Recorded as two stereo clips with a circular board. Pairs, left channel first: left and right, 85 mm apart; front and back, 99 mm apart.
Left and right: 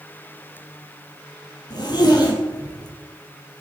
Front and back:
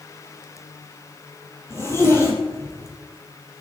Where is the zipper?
60° left, 2.5 m.